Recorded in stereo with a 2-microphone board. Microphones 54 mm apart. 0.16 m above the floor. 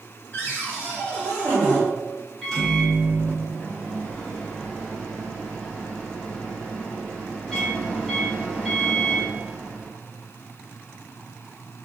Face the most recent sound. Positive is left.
turn(degrees=10)  # may be behind; listen again after turning